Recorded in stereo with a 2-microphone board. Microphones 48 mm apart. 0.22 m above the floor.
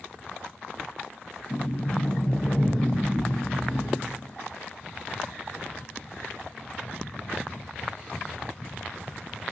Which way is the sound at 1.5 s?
25° left (ahead or behind).